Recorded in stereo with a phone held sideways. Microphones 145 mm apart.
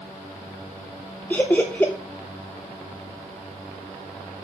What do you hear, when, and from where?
1.3 s laughter: 10° left (ahead or behind), 0.8 m